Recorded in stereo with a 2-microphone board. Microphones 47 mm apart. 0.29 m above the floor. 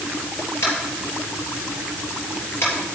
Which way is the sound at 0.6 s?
65° left (ahead or behind).